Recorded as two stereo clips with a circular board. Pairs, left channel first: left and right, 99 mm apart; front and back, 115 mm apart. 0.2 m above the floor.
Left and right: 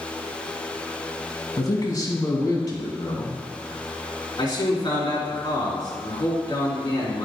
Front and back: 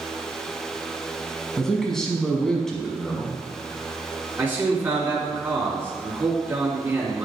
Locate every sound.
1.6 s a man speaking: 85° left, 1.3 m
4.4 s a man speaking: 115° left, 2.5 m